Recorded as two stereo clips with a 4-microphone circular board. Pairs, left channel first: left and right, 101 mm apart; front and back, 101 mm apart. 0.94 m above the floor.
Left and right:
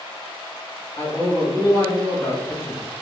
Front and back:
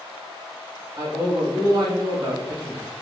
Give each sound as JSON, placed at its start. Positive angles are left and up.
{"t": 1.0, "sound": "a man speaking", "azimuth_deg": 140, "distance_m": 1.6}